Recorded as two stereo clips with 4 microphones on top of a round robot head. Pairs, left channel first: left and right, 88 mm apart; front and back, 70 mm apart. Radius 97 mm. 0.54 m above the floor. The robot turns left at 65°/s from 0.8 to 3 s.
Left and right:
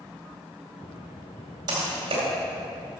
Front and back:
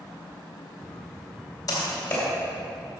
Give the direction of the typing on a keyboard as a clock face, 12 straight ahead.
1 o'clock.